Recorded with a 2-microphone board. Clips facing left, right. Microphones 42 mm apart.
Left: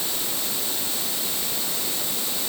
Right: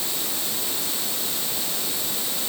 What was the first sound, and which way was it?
Only background noise.